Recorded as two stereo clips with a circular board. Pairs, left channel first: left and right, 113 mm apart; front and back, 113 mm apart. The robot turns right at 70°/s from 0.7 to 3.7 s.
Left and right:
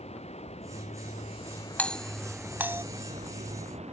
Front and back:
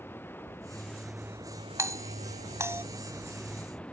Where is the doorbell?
155° left; by 2.8 s 130° right.